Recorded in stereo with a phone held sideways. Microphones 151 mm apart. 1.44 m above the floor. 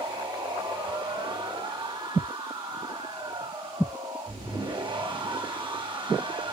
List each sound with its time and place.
0.0 s a machine running: 35° right (ahead or behind), 2 m